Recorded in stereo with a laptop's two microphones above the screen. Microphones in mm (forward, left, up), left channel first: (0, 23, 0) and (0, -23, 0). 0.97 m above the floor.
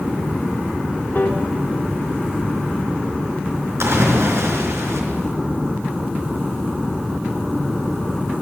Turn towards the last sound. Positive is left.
turn(degrees=-75)  # may be behind; listen again after turning